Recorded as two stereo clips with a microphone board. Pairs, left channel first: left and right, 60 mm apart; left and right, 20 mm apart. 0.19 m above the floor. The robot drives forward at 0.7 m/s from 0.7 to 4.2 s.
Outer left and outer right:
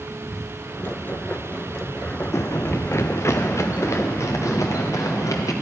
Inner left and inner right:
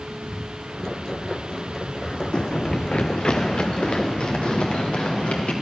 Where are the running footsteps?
55° left (ahead or behind), 0.5 m; by 5.5 s 65° left (ahead or behind), 3 m.